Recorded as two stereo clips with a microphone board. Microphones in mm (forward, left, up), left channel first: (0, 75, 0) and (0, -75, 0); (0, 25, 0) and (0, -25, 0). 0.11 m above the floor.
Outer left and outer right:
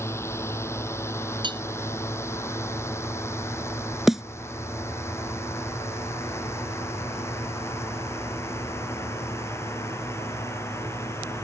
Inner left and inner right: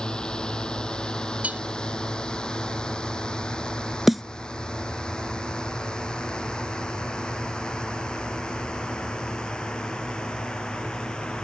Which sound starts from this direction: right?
Cutlery clinking, at 1.4 s.